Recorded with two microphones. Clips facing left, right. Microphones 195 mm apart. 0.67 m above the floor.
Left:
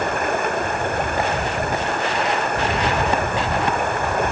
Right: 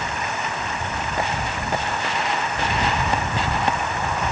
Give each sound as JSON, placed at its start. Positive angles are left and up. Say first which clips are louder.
{"t": 0.0, "sound": "running water", "louder": "left 7 dB", "side_deg": 55}